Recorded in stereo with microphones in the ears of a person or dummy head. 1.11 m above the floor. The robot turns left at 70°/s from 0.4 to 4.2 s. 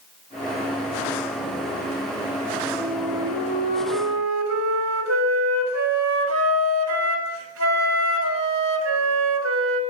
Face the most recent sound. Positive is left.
turn(degrees=-90)